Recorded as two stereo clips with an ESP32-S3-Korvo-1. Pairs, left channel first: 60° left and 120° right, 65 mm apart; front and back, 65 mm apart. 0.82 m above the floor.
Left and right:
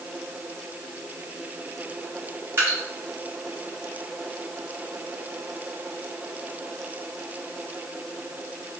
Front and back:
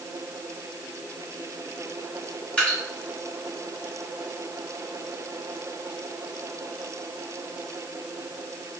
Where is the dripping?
70° right, 1.8 m.